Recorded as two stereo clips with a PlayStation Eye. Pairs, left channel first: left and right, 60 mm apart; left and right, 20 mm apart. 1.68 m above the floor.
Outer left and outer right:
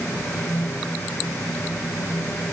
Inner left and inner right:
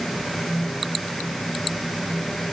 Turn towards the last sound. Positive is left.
No sound to turn to.